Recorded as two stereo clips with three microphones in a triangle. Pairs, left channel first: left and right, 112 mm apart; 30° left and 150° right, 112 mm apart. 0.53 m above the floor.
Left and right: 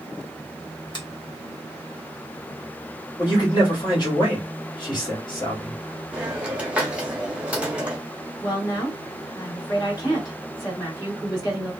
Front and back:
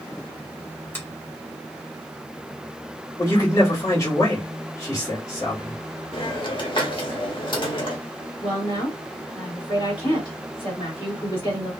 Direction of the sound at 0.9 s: 90° left.